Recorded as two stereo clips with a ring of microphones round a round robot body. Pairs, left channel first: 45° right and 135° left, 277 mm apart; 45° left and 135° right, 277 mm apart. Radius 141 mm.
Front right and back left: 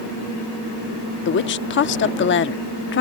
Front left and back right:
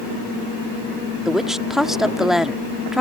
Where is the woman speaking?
50° right.